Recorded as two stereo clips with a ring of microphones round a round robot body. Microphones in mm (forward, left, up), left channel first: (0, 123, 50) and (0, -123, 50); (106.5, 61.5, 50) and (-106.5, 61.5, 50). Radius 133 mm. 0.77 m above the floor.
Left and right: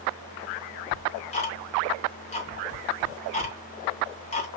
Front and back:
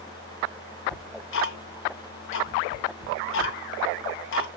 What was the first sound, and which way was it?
Ticking, 25° left.